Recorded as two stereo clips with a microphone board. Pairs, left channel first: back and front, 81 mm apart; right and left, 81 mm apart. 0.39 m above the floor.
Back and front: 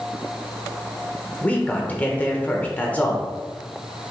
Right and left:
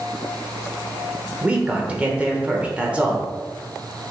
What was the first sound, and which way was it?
A man speaking, 140° left.